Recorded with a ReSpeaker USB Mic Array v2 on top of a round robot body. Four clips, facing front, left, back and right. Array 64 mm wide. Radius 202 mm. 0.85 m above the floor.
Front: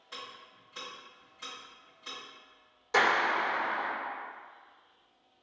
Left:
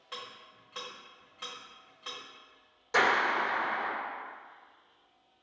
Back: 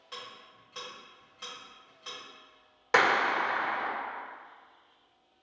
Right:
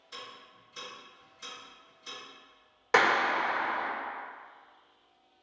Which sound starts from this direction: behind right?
A clap, at 2.9 s.